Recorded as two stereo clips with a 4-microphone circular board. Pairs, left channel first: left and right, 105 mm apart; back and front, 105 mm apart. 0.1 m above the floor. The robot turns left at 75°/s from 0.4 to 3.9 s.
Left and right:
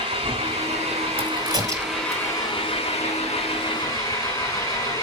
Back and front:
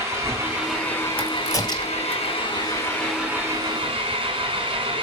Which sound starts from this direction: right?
A crack, at 1.2 s.